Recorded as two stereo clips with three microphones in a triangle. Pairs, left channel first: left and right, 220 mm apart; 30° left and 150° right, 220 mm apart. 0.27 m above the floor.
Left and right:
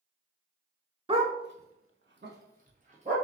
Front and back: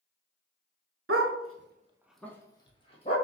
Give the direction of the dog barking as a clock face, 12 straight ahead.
5 o'clock.